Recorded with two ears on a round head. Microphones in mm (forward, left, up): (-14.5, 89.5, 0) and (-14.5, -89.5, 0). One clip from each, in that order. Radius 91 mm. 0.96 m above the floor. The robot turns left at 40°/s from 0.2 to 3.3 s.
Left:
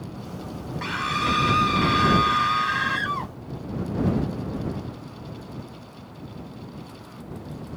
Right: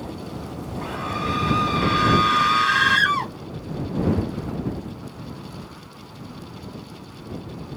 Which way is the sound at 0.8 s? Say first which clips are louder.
Left 3 dB; 50° left.